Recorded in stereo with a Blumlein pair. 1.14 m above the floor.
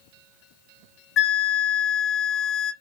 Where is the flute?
30° left, 0.6 m.